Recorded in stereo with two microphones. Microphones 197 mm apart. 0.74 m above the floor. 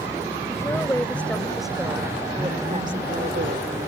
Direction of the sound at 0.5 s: 15° left (ahead or behind).